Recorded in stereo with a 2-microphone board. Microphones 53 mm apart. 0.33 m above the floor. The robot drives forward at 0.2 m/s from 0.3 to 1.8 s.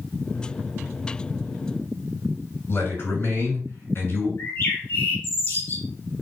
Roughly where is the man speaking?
Left.